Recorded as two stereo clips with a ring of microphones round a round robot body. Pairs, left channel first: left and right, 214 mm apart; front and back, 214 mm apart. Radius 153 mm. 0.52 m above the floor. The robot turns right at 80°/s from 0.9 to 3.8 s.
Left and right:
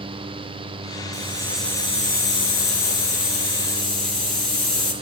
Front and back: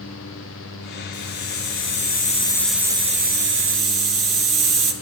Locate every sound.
1.1 s a hiss: 35° right, 5 m; by 4.9 s 175° left, 5 m